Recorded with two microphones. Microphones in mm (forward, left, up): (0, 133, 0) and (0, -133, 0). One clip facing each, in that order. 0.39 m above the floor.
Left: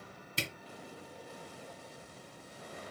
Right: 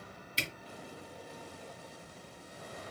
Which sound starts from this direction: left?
A camera shutter, at 0.4 s.